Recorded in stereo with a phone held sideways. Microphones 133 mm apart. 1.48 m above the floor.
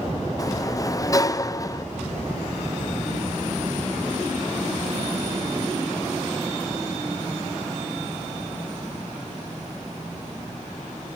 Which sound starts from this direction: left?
A sliding door, at 0.4 s.